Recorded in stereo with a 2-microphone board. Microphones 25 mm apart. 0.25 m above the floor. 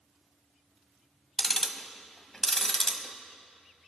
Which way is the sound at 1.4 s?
20° left (ahead or behind).